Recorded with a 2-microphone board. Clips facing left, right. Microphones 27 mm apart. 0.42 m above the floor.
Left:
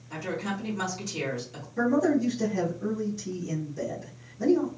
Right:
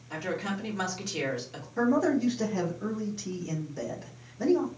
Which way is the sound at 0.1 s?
20° right (ahead or behind).